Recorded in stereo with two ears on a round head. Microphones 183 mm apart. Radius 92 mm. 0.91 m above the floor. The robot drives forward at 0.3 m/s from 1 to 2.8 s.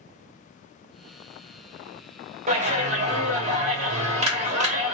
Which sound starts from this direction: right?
A clap, at 2.5 s.